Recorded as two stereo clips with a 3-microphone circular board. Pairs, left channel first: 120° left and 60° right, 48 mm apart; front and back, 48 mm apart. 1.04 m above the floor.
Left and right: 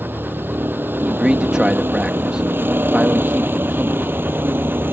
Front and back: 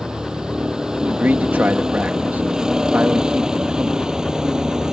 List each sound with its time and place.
0.0 s a vehicle: 105° right
1.0 s a man speaking: 130° right